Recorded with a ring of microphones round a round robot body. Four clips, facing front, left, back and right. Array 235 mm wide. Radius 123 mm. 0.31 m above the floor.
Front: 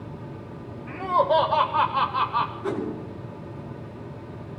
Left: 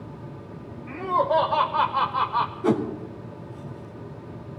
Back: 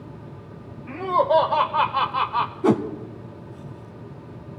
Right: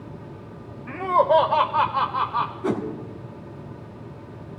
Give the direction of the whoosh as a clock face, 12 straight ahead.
6 o'clock.